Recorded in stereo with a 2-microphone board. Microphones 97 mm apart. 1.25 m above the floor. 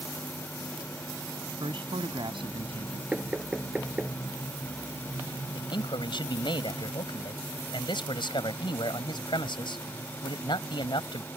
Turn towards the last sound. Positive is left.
turn(degrees=60)  # may be behind; listen again after turning